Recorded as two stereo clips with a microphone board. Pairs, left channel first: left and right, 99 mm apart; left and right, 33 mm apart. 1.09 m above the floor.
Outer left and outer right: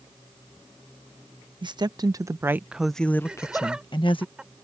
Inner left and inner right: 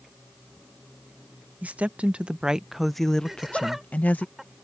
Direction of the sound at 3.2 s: 10° right (ahead or behind).